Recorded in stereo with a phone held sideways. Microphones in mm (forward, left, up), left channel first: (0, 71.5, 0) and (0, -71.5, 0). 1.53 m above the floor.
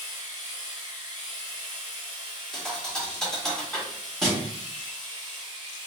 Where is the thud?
5° left (ahead or behind), 0.9 m.